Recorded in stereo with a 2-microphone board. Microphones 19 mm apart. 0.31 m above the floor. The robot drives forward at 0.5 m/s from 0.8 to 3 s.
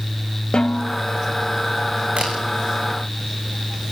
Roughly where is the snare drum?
Left.